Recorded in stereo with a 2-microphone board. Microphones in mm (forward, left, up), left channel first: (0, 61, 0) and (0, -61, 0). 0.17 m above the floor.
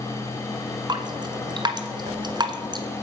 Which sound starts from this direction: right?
Dripping, at 0.9 s.